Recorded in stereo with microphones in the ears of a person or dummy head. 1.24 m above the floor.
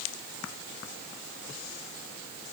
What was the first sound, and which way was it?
Only background noise.